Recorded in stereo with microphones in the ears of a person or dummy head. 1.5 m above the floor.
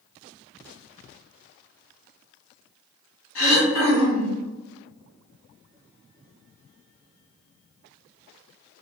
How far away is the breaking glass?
No breaking glass in this recording.